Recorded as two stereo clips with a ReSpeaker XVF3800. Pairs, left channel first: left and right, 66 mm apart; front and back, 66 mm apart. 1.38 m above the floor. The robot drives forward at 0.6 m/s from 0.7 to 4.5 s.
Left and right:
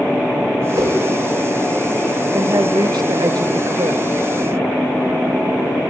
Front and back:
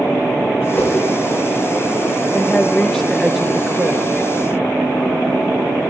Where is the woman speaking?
65° right, 1.2 m; by 4.0 s 115° right, 1.2 m.